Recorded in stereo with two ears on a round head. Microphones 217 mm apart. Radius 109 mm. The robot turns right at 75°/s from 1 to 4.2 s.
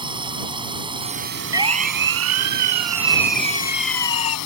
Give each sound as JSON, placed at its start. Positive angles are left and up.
{"t": 0.0, "sound": "a drone", "azimuth_deg": -160}
{"t": 1.5, "sound": "a siren", "side_deg": -15}